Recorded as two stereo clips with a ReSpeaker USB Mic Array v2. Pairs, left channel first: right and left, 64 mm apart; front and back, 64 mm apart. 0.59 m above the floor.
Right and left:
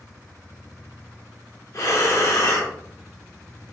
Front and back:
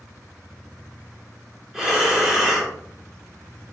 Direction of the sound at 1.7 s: 100° right.